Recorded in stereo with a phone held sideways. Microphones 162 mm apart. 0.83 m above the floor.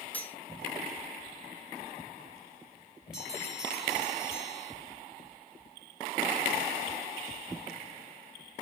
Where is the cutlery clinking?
10° left (ahead or behind), 1.2 m.